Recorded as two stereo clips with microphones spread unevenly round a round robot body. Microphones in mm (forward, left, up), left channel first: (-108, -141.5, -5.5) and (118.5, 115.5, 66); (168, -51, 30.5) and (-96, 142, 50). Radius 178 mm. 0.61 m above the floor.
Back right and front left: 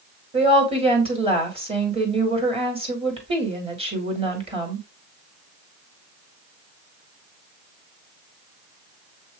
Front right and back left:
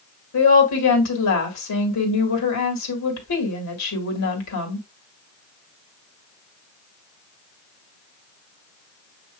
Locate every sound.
0.3 s a woman speaking: 30° right, 1.8 m